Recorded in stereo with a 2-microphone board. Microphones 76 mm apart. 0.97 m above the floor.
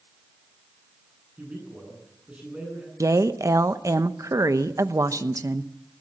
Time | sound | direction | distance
1.4 | a man speaking | 15° right (ahead or behind) | 9.5 m
3.0 | a woman speaking | 45° right (ahead or behind) | 1.0 m